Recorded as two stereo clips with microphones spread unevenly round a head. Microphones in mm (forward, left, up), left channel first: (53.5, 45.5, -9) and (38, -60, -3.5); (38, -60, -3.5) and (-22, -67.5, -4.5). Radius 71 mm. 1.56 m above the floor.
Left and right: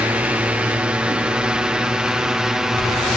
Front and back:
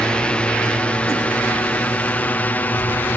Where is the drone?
40° right; by 3.2 s 15° right.